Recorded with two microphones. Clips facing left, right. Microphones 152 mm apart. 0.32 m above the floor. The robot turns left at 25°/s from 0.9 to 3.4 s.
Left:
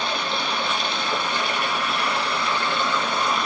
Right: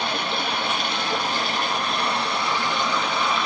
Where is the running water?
115° right, 1.4 m; by 3.5 s straight behind, 1.4 m.